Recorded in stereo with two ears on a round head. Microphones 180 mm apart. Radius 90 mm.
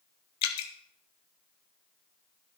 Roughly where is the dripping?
Left.